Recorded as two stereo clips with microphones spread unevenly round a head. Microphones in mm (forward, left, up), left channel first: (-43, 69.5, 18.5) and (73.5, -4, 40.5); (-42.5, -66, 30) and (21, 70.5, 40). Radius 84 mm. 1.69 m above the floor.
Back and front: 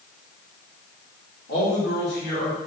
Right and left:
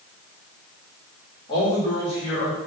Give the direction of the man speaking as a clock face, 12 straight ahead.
6 o'clock.